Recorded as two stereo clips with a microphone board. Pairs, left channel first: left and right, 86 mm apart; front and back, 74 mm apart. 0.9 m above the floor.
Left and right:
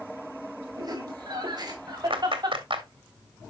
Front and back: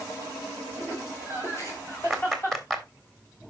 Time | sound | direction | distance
0.8 | laughter | 45° right | 5 m
2.1 | a clap | 85° right | 1.8 m